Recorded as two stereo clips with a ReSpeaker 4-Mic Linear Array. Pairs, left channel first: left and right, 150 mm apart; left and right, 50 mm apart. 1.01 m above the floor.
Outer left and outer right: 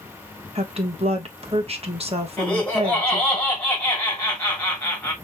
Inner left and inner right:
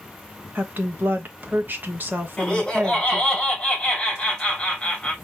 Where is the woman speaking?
40° right (ahead or behind), 1.2 m.